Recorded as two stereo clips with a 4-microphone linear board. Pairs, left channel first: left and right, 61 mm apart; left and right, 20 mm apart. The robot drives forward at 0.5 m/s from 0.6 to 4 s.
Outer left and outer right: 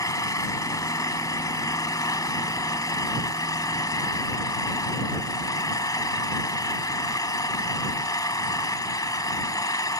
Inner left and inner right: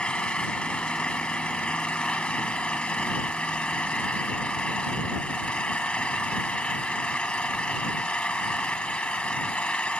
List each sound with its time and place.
0.0 s an engine running: 75° left (ahead or behind); by 10.0 s 85° left